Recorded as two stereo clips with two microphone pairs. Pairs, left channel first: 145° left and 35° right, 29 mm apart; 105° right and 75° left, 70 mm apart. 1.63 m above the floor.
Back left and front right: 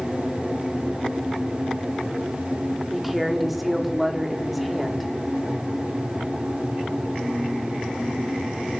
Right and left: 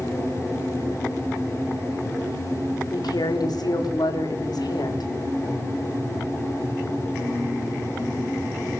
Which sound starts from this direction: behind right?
A woman speaking, at 2.9 s.